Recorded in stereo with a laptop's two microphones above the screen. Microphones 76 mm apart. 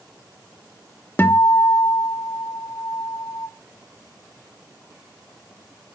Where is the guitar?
30° left (ahead or behind), 1.3 m.